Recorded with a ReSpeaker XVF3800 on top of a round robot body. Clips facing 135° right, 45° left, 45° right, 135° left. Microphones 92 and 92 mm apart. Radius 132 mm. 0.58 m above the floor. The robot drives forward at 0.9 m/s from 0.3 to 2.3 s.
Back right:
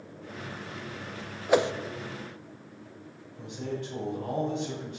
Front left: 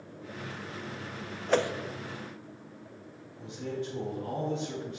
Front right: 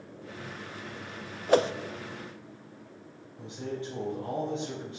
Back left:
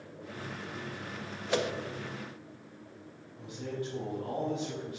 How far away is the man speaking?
About 4.5 m.